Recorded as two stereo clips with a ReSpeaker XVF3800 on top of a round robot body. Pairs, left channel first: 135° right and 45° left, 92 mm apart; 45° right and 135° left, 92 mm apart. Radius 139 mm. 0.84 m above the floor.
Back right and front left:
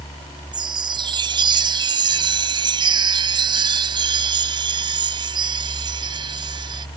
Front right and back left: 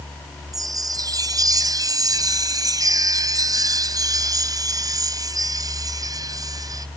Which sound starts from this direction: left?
A chime, at 0.5 s.